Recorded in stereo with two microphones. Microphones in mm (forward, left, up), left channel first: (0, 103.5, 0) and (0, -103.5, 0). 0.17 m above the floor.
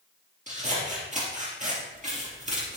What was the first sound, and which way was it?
Scissors, 35° right (ahead or behind).